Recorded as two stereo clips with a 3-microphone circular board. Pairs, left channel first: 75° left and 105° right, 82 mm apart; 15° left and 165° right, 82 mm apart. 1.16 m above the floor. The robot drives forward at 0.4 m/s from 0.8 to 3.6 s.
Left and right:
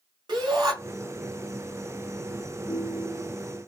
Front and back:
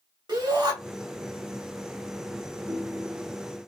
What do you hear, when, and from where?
0.3 s a shout: 135° right, 2 m
2.7 s a ringtone: 145° left, 0.8 m; by 3.4 s 155° left, 1.0 m